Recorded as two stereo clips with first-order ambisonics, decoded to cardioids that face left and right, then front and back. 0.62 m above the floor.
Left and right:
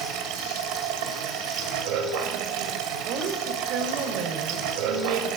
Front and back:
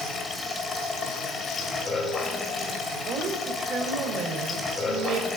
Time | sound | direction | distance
0.0 | running water | 70° right | 2 m
3.0 | a woman speaking | 115° right | 2 m